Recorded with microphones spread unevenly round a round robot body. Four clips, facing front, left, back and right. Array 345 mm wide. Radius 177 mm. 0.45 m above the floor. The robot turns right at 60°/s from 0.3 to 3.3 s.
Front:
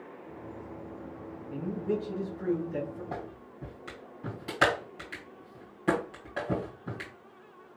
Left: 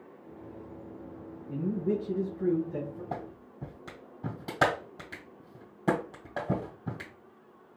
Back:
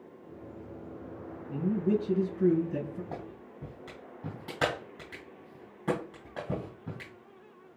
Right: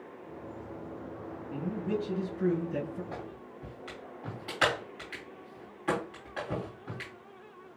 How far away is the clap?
About 2.5 m.